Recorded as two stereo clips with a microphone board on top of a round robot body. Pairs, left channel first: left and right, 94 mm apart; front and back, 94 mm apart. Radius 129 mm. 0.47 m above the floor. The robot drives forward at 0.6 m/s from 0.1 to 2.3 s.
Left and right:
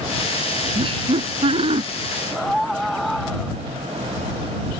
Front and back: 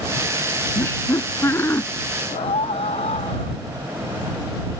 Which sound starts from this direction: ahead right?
Laughter, at 0.8 s.